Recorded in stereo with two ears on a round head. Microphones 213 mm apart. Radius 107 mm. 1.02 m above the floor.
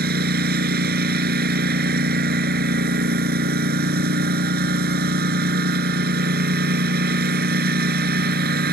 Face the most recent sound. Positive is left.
turn(degrees=-40)  # may be behind; listen again after turning